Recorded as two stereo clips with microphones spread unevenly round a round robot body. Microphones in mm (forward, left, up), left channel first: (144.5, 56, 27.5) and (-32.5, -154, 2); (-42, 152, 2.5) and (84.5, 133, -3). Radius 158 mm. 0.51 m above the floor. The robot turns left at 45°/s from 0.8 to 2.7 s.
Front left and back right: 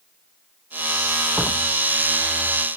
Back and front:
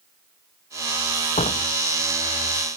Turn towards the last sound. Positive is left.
turn(degrees=80)